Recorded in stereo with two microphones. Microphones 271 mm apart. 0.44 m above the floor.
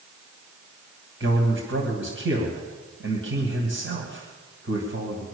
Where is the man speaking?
50° right (ahead or behind), 3 m.